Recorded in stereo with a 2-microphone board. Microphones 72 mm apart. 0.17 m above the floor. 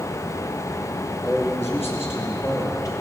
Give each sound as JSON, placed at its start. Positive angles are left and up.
{"t": 1.2, "sound": "a man speaking", "side_deg": 20, "distance_m": 3.0}